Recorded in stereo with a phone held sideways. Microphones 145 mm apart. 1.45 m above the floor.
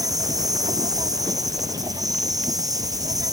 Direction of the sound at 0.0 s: 25° right (ahead or behind).